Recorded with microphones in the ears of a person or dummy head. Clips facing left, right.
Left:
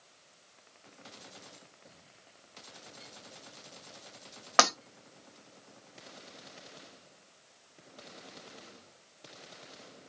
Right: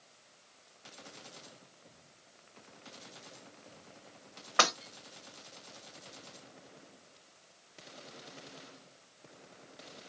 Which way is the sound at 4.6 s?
65° left (ahead or behind).